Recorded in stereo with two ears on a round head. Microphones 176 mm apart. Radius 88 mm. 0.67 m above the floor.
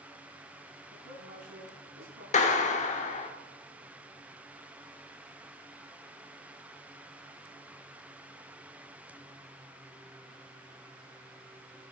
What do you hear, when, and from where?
0.9 s a woman speaking: 70° right (ahead or behind), 8 m
2.3 s a clap: 35° left (ahead or behind), 1.4 m